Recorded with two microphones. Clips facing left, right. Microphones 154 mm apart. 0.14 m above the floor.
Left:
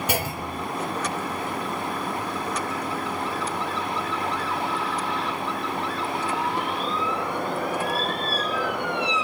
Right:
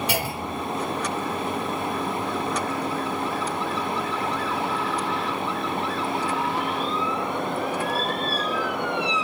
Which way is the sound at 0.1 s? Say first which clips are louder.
Even; 45° left (ahead or behind).